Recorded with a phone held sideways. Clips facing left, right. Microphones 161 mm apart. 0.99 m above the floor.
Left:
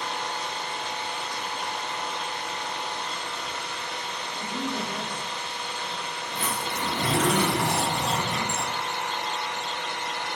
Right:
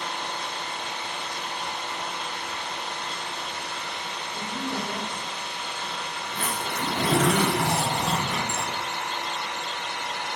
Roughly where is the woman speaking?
Right.